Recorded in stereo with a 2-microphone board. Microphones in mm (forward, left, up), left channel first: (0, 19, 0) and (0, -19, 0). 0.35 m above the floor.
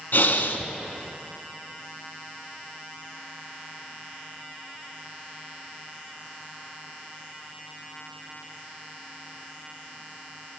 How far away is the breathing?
About 0.7 m.